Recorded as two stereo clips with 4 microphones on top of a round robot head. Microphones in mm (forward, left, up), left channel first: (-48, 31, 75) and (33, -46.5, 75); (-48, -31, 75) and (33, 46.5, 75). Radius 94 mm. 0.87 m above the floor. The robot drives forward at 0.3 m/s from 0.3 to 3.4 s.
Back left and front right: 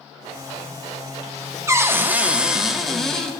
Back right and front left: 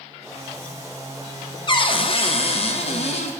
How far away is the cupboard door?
About 0.7 m.